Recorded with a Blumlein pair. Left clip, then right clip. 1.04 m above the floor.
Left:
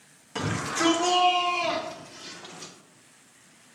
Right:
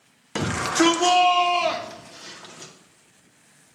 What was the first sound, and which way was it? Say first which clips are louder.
A shout: right 6 dB; 30° right.